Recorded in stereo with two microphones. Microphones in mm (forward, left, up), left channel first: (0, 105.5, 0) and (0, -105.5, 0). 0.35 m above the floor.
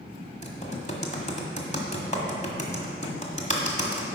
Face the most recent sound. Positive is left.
turn(degrees=30)  # may be behind; listen again after turning